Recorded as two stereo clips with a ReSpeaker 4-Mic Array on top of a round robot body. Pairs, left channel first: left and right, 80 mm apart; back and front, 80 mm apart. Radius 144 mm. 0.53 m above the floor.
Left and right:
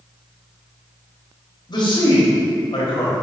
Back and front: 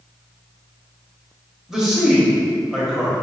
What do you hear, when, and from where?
1.7 s a man speaking: 85° left, 1.7 m